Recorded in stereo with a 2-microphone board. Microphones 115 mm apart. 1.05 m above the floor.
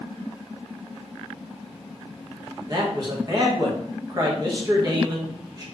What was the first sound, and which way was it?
A man speaking, 35° right (ahead or behind).